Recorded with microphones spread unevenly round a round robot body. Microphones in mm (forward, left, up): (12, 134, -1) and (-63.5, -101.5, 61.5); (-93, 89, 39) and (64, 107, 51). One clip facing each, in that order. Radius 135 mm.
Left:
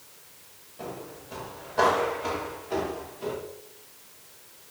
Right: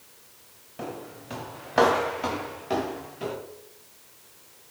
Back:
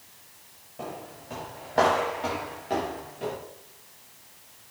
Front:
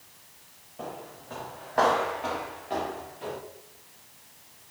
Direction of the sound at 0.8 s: 85° right.